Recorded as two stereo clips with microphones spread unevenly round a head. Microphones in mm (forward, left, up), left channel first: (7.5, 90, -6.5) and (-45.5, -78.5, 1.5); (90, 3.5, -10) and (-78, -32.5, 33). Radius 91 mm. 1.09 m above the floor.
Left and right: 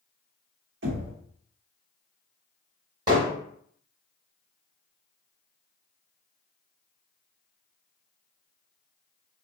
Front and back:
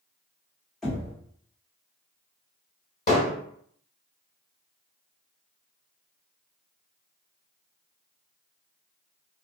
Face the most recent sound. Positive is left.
turn(degrees=-40)